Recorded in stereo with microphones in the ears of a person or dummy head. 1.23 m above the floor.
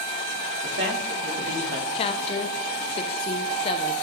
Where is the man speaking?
60° right (ahead or behind), 3 m.